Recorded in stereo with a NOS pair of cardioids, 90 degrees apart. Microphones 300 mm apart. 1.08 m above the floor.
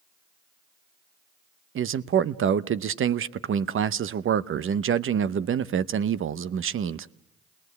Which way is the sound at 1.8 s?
45° right.